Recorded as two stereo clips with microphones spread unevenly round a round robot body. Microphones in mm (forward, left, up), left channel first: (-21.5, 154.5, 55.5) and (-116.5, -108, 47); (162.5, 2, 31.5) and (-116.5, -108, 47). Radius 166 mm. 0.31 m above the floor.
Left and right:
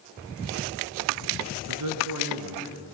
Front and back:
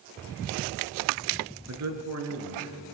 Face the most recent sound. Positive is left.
turn(degrees=-125)